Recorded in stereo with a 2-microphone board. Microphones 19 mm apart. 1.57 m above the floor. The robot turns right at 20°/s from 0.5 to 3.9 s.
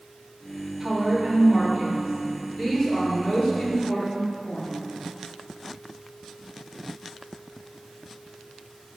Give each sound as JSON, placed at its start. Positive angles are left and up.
{"t": 0.8, "sound": "a woman speaking", "azimuth_deg": 5, "distance_m": 4.0}